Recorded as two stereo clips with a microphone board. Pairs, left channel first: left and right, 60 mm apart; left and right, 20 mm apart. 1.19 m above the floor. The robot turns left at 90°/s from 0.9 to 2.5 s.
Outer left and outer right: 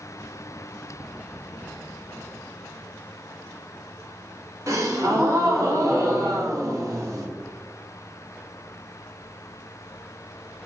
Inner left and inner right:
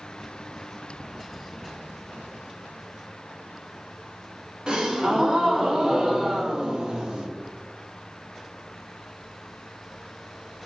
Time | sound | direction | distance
4.7 | a gasp | 60° right (ahead or behind) | 0.8 m